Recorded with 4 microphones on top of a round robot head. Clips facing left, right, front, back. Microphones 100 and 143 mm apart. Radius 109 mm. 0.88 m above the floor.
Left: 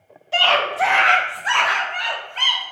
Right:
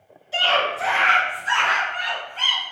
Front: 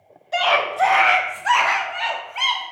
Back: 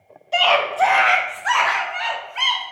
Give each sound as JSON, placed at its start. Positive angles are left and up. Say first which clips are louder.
{"t": 0.3, "sound": "a scream", "louder": "left 3 dB, back 2 dB", "azimuth_deg": 105, "distance_m": 1.2}